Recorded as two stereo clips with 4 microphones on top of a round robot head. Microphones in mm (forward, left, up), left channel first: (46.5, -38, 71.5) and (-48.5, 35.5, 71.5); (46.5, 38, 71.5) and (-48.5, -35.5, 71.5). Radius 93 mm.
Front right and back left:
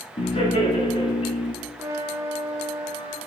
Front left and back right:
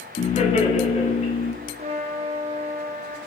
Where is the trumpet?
155° right, 1.4 m.